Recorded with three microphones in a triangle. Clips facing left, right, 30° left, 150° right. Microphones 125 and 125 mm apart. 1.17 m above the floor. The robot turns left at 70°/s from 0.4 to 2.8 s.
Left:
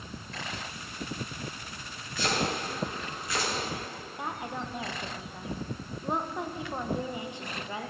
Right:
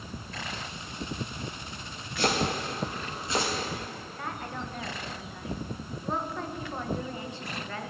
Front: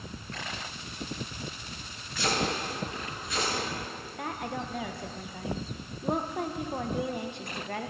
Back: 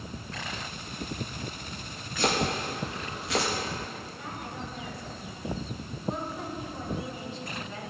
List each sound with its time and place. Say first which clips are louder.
2.2 s chopping: right 2 dB, back 2 dB; 110° right, 1.9 m; by 3.5 s 155° right, 1.9 m
4.2 s a woman speaking: left 2 dB, front 7 dB; 20° left, 1.0 m